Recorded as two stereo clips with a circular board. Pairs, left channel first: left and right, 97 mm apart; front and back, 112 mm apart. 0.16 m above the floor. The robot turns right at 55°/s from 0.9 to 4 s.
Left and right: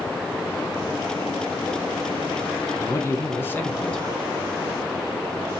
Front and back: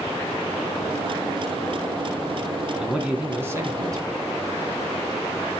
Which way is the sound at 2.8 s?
95° left.